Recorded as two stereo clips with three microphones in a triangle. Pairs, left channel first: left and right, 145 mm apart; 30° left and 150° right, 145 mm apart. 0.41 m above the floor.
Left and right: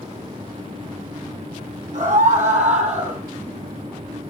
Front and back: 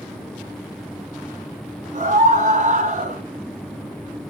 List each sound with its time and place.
1.9 s a scream: 120° right, 4 m